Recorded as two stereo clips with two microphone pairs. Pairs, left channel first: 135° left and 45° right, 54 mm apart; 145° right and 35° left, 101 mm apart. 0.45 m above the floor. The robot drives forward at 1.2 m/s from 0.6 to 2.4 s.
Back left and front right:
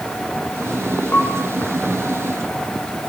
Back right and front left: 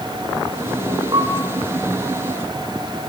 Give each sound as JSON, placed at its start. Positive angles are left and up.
{"t": 1.1, "sound": "a piano", "azimuth_deg": 80, "distance_m": 6.0}